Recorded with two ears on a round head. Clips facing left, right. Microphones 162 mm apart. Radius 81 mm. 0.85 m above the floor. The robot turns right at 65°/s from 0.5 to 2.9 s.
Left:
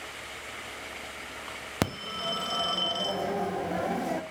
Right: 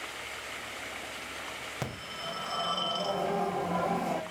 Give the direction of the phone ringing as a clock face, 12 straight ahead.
9 o'clock.